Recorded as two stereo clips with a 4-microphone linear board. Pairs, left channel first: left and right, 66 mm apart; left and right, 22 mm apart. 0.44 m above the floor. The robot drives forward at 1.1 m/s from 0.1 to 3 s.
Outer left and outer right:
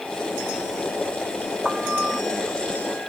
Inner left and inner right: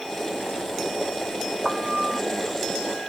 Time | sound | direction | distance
1.6 | a piano | 5° right (ahead or behind) | ?